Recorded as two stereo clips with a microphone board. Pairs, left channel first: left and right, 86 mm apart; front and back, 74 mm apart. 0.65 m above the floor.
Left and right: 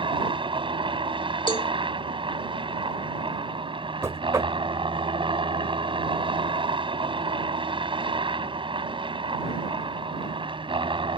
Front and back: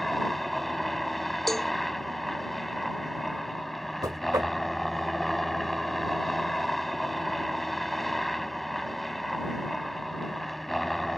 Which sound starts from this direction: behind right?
Knocking, at 4.0 s.